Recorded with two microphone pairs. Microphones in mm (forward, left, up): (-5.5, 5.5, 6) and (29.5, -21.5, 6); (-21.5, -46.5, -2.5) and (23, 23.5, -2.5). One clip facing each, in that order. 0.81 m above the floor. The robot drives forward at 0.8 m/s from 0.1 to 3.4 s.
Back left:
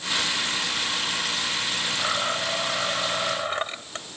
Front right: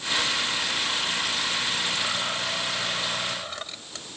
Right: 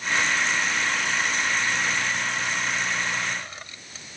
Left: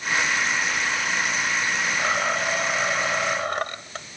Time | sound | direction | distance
2.0 | a blender | 75° left | ?